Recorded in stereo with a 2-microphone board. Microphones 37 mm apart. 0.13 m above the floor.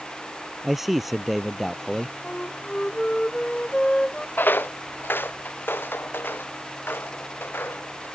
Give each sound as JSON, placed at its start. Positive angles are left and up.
{"t": 0.6, "sound": "a man speaking", "side_deg": -5}
{"t": 2.2, "sound": "a flute", "side_deg": 30}
{"t": 4.4, "sound": "footsteps", "side_deg": 60}